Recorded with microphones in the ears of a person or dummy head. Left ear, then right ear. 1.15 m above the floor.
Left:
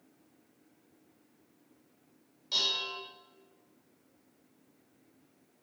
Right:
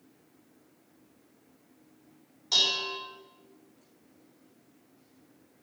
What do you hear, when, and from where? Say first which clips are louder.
2.5 s dishes clattering: right 5 dB; 10° right (ahead or behind), 3 m